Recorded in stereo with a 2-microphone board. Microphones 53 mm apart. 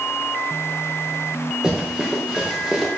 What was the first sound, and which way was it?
Running footsteps, 20° right (ahead or behind).